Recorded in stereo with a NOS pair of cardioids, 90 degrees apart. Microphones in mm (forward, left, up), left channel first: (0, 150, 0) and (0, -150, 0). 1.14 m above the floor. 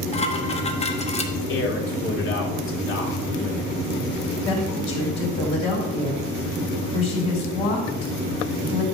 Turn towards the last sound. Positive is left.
turn(degrees=45)